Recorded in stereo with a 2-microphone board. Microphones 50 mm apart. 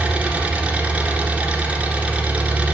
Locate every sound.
0.0 s an engine running: 25° right (ahead or behind), 1.9 m